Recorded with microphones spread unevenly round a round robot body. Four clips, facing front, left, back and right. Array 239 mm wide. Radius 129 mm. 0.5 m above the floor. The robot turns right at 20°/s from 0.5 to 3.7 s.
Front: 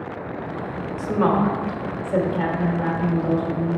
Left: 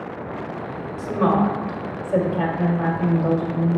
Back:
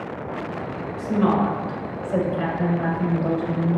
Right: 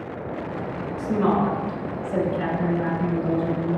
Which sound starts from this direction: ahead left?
A woman speaking, at 1.0 s.